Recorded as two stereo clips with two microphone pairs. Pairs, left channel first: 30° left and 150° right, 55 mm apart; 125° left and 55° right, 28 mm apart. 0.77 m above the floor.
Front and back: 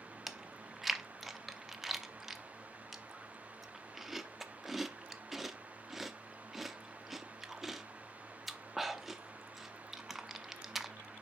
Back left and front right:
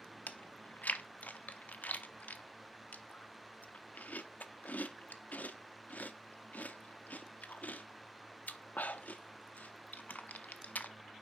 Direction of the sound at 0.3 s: 120° left.